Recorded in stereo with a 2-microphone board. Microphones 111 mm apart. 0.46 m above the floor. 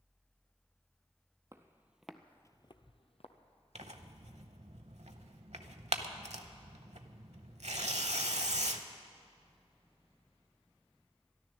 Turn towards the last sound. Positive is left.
turn(degrees=-80)